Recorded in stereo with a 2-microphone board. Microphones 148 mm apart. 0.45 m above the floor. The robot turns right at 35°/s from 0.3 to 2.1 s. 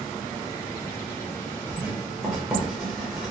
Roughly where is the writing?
Centre.